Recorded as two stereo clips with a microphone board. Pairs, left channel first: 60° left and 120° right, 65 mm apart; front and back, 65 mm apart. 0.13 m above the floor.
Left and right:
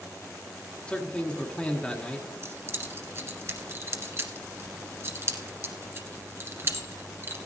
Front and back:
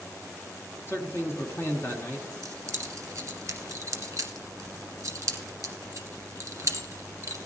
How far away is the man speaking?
About 1.4 m.